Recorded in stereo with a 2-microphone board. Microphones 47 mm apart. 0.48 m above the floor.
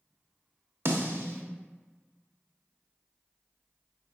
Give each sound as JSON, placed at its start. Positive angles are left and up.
{"t": 0.8, "sound": "a snare drum", "side_deg": -60, "distance_m": 0.6}